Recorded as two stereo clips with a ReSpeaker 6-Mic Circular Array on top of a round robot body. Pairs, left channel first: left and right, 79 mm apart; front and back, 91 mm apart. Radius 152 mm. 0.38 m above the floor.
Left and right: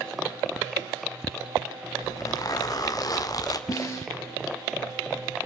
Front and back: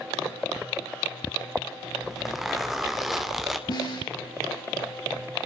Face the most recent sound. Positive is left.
turn(degrees=45)